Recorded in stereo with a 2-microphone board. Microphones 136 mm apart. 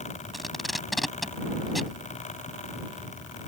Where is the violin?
I don't hear a violin.